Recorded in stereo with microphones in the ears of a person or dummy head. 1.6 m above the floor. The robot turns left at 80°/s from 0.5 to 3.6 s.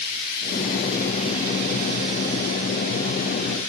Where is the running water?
50° left, 1.5 m; by 3.7 s 165° left, 1.5 m.